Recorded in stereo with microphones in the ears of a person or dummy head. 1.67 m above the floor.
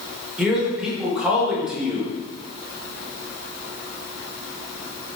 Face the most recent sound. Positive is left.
turn(degrees=-5)  # may be behind; listen again after turning